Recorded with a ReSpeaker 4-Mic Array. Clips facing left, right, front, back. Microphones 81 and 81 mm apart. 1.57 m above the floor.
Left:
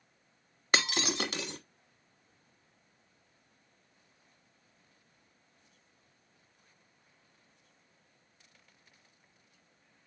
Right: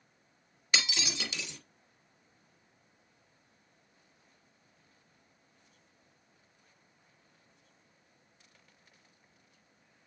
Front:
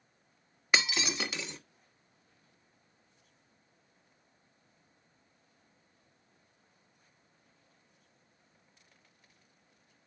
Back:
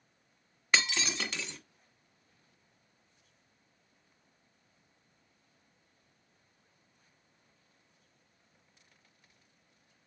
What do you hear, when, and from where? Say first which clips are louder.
0.7 s breaking glass: left 4 dB, front 1 dB; 80° left, 1.4 m